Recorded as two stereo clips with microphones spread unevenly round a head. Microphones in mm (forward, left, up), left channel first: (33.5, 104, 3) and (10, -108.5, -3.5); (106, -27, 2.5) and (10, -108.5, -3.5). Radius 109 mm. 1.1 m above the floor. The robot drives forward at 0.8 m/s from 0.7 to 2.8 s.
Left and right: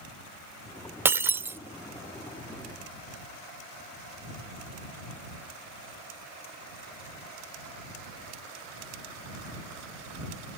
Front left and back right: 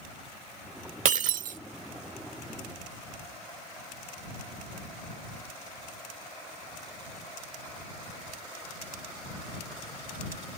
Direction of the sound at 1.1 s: 175° right.